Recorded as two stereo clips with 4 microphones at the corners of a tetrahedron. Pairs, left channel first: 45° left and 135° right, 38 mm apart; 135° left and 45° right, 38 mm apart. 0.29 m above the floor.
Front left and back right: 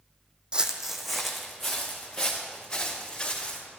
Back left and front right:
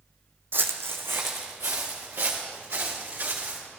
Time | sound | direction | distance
0.5 | footsteps | 70° right | 0.9 m